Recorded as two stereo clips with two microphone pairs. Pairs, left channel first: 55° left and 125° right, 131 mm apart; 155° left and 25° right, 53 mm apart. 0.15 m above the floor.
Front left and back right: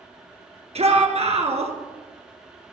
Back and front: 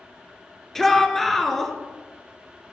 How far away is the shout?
About 2.5 m.